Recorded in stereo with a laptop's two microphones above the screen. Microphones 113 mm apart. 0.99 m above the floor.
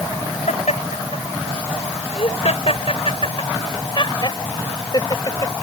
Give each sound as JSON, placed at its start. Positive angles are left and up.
{"t": 0.5, "sound": "laughter", "side_deg": 80}